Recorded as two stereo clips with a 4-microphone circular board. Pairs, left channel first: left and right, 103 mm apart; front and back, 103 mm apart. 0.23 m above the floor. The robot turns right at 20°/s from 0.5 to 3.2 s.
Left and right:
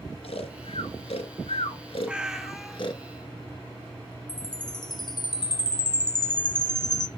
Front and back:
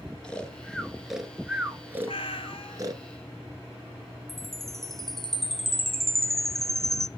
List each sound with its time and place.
0.2 s snoring: 80° left, 1.1 m; by 3.0 s 130° left, 1.1 m
2.1 s a cat meowing: 10° right, 0.6 m; by 2.8 s 5° left, 0.6 m
4.3 s a chime: 85° left, 0.6 m